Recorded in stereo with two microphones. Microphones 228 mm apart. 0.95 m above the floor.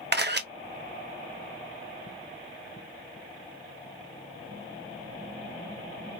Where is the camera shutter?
50° right (ahead or behind), 0.5 m.